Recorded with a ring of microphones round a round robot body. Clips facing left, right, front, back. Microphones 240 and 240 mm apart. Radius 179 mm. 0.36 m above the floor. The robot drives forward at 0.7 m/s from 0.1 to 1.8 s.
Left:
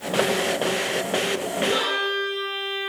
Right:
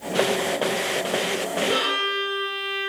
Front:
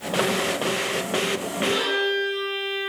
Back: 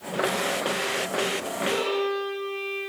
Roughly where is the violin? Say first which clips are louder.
Left 1 dB, even; ahead right.